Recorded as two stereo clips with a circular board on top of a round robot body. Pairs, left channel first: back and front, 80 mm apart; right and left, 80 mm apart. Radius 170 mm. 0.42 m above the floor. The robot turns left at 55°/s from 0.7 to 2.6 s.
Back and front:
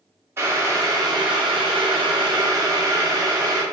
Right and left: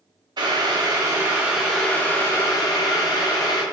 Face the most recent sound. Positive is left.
turn(degrees=-45)